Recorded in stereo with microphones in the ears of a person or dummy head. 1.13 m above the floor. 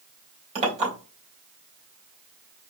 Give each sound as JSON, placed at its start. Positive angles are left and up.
{"t": 0.6, "sound": "a clink", "side_deg": -30, "distance_m": 3.0}